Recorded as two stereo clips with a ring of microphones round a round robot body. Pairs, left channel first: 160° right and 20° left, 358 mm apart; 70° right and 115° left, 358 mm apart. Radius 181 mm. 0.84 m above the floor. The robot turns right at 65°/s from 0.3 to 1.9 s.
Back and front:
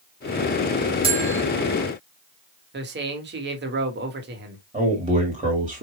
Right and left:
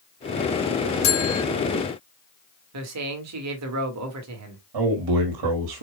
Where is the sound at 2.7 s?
80° left, 1.7 m.